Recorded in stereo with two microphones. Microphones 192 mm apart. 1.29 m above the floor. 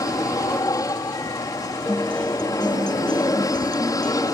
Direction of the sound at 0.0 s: 20° left (ahead or behind).